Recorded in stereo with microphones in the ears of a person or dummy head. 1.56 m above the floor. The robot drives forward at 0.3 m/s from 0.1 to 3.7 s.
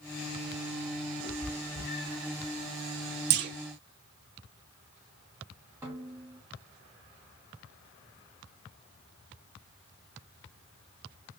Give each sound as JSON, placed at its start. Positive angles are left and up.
{"t": 1.2, "sound": "a cat meowing", "side_deg": -60, "distance_m": 3.5}
{"t": 3.3, "sound": "a clunk", "side_deg": -55, "distance_m": 1.1}
{"t": 5.8, "sound": "a snare drum", "side_deg": -10, "distance_m": 1.5}